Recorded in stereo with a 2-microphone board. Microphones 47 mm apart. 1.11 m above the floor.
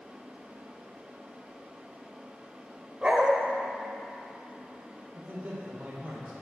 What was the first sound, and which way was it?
A dog barking, 25° right (ahead or behind).